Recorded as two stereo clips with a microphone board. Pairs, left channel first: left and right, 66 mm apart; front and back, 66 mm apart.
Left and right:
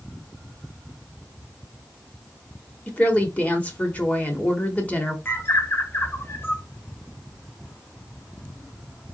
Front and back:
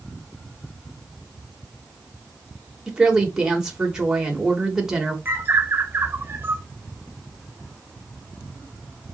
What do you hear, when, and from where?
2.9 s a woman speaking: 115° left, 0.9 m
5.2 s a bird: 135° left, 0.8 m